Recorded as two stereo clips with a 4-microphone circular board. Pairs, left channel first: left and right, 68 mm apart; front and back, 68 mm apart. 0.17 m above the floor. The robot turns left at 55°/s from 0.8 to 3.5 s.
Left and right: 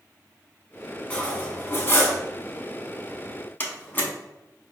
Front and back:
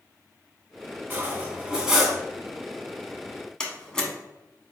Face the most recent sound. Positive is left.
turn(degrees=70)